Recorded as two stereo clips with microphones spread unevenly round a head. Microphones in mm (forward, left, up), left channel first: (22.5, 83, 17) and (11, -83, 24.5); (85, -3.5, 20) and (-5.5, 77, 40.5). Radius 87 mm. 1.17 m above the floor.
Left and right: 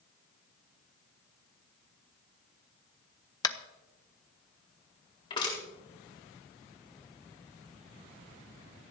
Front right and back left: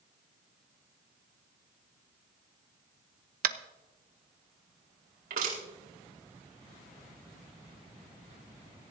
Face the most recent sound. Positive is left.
turn(degrees=150)